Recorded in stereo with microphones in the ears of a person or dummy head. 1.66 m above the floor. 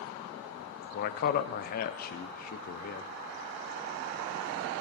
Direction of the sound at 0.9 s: 50° left (ahead or behind).